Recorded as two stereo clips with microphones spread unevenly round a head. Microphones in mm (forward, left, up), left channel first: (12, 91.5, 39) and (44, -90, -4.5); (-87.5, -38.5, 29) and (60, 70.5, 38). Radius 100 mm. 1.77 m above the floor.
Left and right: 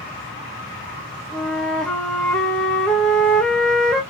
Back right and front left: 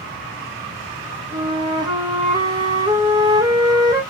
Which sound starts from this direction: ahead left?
A flute, at 1.3 s.